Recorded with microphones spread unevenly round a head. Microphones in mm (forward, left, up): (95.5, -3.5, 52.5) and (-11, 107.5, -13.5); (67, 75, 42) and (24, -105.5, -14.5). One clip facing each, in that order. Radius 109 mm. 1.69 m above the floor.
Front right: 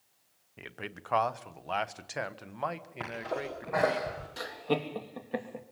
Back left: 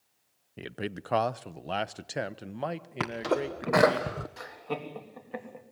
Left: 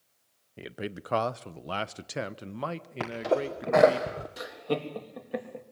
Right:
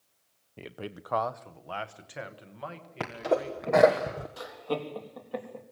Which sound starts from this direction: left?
A man speaking, at 0.6 s.